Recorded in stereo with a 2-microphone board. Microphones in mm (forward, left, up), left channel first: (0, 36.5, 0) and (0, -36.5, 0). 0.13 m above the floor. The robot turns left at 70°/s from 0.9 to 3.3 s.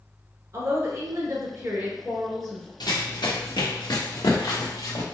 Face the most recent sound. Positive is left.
turn(degrees=60)  # may be behind; listen again after turning